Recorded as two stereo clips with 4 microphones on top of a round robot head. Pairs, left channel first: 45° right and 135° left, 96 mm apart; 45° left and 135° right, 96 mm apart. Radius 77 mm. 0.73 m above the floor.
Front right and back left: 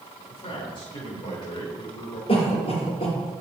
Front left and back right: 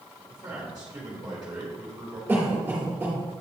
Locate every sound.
0.3 s a man speaking: 55° right, 2.5 m
2.3 s a cough: 60° right, 3 m